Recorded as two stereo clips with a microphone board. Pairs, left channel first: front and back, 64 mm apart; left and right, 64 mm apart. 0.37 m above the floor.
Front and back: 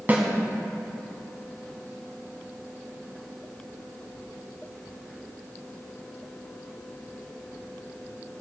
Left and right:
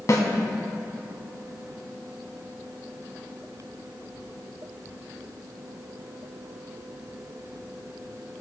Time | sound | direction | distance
0.1 | a snare drum | 125° left | 1.5 m